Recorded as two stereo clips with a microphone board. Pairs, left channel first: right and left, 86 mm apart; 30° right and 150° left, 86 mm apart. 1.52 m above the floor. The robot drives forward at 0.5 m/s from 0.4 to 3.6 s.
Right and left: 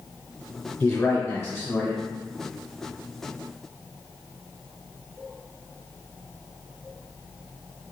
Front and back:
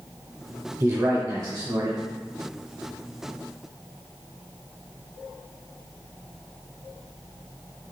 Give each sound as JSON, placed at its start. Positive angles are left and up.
{"t": 0.8, "sound": "a man speaking", "azimuth_deg": -165, "distance_m": 0.7}